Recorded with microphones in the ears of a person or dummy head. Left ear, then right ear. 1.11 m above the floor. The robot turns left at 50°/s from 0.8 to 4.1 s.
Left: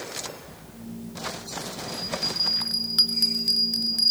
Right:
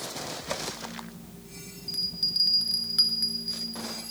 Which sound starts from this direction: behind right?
A bell, at 1.9 s.